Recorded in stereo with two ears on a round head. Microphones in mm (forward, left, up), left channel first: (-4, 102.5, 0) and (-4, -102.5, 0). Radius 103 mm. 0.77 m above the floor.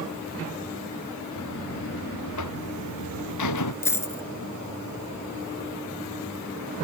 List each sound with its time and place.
1.4 s a buzzer: 85° left
3.8 s a dropped coin: 10° left (ahead or behind)